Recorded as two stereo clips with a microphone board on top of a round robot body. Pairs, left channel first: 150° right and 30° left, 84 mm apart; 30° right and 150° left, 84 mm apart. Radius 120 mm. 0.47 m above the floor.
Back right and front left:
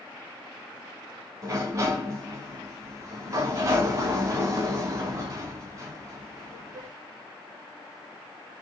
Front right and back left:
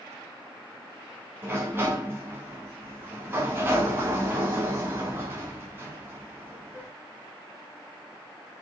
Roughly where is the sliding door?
Left.